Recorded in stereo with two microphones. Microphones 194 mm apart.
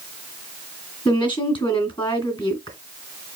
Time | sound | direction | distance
1.1 | a woman speaking | 25° left (ahead or behind) | 2 m